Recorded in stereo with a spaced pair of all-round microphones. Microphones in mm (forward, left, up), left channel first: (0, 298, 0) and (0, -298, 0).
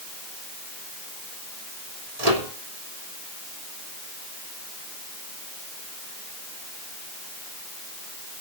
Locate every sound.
2.2 s a microwave: 85° right, 3 m